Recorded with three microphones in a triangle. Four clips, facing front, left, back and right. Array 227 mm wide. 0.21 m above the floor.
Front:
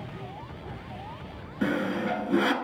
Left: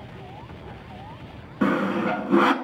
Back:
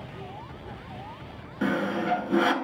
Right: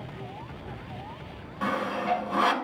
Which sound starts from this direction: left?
Sawing, at 1.6 s.